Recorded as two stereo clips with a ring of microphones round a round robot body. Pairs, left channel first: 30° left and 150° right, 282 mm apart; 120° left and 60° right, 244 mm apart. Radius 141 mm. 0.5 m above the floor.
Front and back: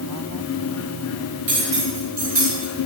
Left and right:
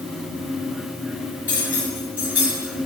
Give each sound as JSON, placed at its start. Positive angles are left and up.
{"t": 1.5, "sound": "cutlery clinking", "azimuth_deg": -145, "distance_m": 4.0}